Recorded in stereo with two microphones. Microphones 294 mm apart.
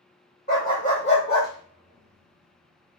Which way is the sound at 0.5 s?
35° left (ahead or behind).